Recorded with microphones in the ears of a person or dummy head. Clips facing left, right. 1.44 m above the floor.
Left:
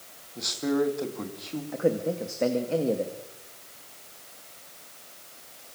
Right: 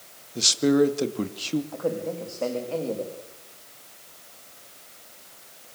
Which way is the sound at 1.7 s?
20° left (ahead or behind).